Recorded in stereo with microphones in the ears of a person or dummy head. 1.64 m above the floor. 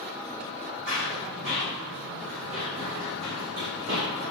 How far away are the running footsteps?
About 6 m.